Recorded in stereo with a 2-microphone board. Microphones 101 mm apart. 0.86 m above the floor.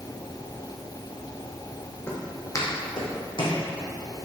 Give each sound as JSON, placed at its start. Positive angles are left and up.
{"t": 2.1, "sound": "footsteps", "side_deg": 25, "distance_m": 1.9}